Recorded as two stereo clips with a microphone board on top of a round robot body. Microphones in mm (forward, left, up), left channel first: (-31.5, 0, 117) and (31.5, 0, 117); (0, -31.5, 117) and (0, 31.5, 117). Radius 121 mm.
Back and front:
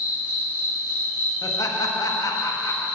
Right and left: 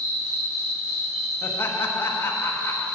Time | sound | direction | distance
0.0 | an insect | 70° left | 3 m
1.4 | laughter | 145° right | 1.4 m